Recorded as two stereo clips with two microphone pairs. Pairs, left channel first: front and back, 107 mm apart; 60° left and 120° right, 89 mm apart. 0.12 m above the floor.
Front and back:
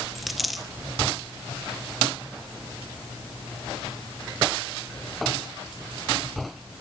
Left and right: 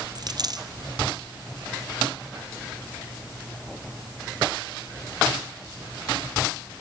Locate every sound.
0.1 s a dropped coin: 90° right, 1.3 m